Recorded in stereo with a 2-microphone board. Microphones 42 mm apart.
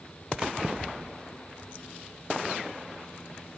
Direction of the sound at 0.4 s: 25° right (ahead or behind).